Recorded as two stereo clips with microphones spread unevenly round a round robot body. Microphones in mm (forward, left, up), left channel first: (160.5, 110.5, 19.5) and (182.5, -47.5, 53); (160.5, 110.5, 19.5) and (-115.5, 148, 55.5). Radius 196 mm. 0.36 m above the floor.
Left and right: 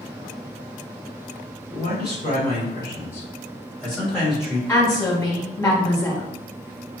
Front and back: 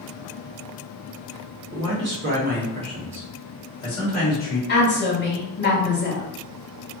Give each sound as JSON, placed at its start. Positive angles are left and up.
{"t": 1.7, "sound": "a man speaking", "azimuth_deg": 135, "distance_m": 1.5}
{"t": 4.7, "sound": "a woman speaking", "azimuth_deg": 30, "distance_m": 1.8}